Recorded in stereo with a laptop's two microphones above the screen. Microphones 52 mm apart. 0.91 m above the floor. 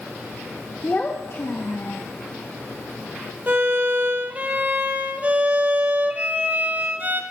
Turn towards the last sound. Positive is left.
turn(degrees=-35)  # may be behind; listen again after turning